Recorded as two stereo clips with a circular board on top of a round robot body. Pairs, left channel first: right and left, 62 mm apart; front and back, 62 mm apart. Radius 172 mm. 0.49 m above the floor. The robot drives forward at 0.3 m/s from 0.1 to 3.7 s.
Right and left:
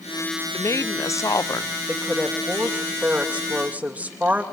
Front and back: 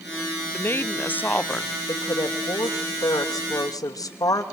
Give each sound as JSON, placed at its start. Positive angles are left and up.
{"t": 0.5, "sound": "a woman speaking", "azimuth_deg": -50, "distance_m": 1.5}
{"t": 1.9, "sound": "a woman speaking", "azimuth_deg": 15, "distance_m": 3.0}